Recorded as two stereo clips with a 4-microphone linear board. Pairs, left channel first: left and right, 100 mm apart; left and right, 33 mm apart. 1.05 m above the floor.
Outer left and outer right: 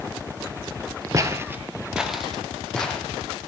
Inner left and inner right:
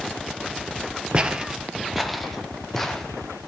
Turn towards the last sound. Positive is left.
turn(degrees=10)  # may be behind; listen again after turning